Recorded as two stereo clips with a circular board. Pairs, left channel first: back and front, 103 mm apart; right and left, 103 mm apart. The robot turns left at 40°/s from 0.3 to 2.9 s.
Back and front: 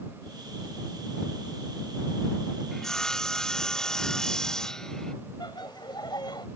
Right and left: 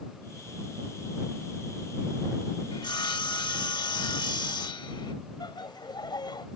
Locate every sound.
2.7 s sawing: 90° right; by 5.1 s 95° right
5.4 s laughter: 135° right